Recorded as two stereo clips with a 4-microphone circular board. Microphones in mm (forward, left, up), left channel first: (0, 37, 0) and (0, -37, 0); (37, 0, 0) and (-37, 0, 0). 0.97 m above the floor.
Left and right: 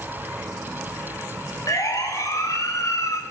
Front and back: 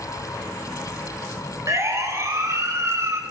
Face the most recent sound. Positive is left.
turn(degrees=130)